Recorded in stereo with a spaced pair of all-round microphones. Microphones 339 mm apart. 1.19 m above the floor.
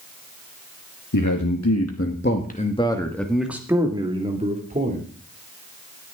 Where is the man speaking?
65° left (ahead or behind), 1.7 m; by 5.0 s 25° right (ahead or behind), 3 m.